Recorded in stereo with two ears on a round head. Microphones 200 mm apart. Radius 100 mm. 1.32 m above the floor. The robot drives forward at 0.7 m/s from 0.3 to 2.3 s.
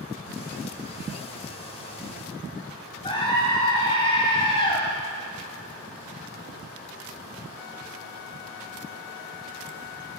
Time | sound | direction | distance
3.0 | a scream | 25° left (ahead or behind) | 8 m